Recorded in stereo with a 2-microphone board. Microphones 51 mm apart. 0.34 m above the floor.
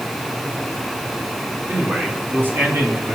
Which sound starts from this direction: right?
A man speaking, at 1.7 s.